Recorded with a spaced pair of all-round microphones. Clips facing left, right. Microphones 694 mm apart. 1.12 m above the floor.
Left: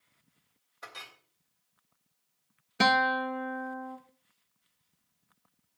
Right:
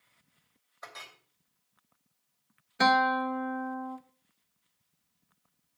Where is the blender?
I don't hear a blender.